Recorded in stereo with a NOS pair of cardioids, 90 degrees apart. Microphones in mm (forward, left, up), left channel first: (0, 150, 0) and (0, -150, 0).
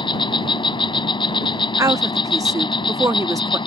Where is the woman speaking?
10° right.